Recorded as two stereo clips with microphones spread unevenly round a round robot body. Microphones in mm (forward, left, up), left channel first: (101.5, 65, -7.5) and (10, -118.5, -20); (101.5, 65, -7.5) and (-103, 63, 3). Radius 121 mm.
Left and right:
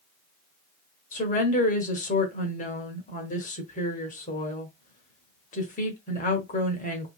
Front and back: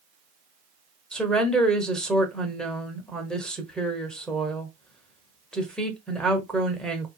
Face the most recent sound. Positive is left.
turn(degrees=80)